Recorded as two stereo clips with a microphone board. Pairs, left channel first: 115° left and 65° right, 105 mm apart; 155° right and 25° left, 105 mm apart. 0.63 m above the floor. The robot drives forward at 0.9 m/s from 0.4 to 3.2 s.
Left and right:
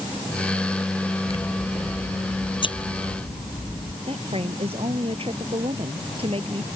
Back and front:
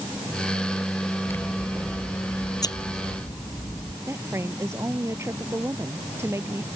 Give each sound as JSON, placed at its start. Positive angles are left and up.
{"t": 1.3, "sound": "scissors", "azimuth_deg": 135}
{"t": 4.1, "sound": "a woman speaking", "azimuth_deg": -40}